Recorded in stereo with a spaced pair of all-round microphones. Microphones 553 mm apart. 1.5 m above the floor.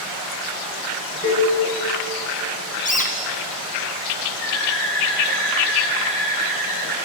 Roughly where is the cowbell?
Left.